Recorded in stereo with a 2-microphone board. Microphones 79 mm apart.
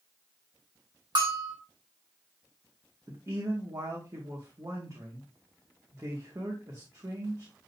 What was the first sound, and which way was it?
A bell, 65° right (ahead or behind).